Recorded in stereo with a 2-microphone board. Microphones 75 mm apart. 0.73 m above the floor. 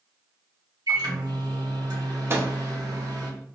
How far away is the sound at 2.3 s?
About 0.6 m.